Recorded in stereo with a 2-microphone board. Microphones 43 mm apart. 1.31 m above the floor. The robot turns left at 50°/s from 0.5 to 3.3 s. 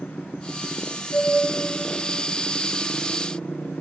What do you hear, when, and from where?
1.1 s a flute: 55° left (ahead or behind), 5.5 m; by 1.3 s 65° left (ahead or behind), 5.5 m